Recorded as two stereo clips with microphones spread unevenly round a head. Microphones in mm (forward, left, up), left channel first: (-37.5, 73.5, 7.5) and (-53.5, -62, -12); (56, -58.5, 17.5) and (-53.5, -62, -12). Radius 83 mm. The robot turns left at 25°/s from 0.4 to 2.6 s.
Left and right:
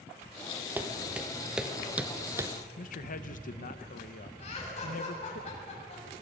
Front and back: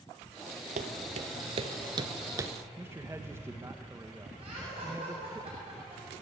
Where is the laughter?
120° left, 8 m.